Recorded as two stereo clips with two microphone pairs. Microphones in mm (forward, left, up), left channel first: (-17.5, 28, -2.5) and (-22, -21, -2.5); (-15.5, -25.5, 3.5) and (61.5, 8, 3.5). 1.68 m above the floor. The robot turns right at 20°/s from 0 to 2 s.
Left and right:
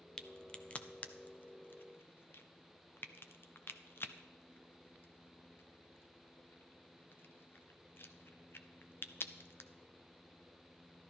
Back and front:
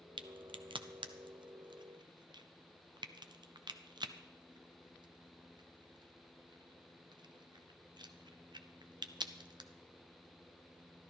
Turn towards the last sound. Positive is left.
turn(degrees=50)